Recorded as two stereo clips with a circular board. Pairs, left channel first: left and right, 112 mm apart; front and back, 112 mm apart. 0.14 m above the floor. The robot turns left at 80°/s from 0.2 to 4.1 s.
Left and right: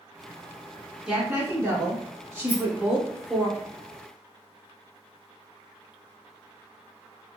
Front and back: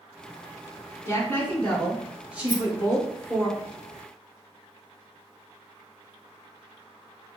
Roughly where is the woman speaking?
Ahead.